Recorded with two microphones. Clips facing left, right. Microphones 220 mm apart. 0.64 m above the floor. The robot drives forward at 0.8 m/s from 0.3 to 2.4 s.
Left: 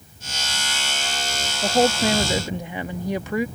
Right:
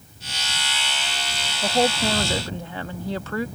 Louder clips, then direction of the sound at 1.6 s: Left 2 dB; 10° left (ahead or behind).